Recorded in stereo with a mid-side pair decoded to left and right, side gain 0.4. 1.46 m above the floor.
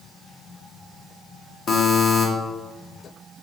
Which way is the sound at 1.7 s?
55° left.